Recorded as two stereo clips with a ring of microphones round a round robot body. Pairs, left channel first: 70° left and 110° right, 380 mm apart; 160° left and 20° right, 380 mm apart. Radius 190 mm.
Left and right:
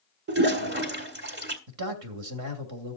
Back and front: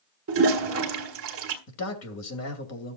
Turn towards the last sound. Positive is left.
turn(degrees=-155)